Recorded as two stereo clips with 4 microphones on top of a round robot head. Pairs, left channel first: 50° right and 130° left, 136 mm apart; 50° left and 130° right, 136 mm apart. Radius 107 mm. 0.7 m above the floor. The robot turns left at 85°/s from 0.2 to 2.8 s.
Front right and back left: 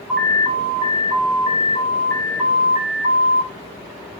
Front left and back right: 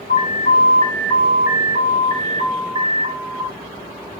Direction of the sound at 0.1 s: 40° left.